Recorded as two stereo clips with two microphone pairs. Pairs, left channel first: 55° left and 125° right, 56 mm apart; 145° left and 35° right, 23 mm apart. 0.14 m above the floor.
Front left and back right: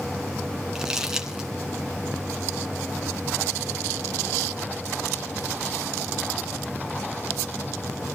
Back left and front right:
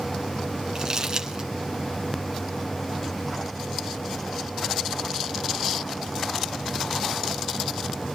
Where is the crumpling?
55° right, 1.7 m.